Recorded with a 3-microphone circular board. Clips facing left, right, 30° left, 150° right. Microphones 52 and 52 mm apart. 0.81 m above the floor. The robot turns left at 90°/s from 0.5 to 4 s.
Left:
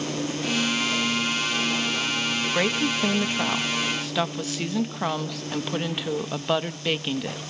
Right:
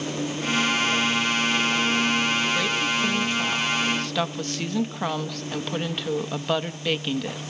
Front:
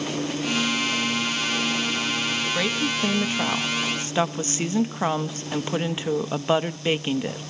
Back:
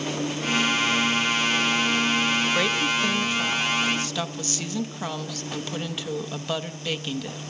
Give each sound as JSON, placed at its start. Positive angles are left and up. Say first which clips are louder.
{"t": 2.5, "sound": "a woman speaking", "louder": "even, back 2 dB", "azimuth_deg": 135, "distance_m": 0.6}